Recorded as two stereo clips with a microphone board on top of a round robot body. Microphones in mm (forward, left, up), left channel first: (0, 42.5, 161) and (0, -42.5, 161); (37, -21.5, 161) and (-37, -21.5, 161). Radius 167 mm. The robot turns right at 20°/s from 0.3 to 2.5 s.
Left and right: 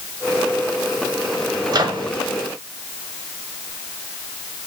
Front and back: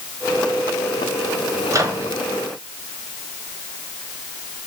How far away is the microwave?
About 0.8 m.